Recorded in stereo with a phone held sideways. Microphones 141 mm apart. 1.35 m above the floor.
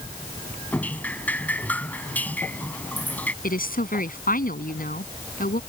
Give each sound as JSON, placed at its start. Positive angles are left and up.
{"t": 0.7, "sound": "dripping", "side_deg": 10}
{"t": 3.4, "sound": "a woman speaking", "side_deg": 75}